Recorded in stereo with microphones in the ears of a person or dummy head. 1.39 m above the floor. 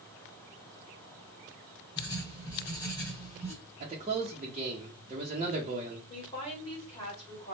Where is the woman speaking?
30° left (ahead or behind), 2.5 m.